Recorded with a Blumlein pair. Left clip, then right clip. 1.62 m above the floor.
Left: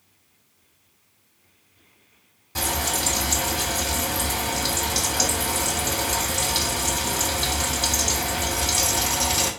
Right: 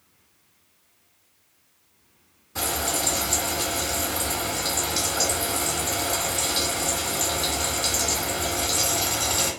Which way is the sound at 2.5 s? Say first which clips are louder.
Left 1 dB; 50° left.